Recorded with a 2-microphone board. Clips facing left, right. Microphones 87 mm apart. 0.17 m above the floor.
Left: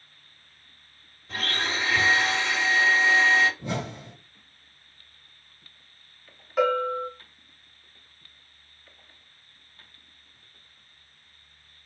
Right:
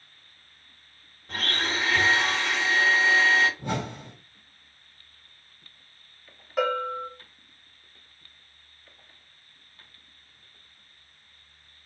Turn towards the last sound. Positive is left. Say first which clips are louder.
# left 3 dB
turn(degrees=-5)  # may be behind; listen again after turning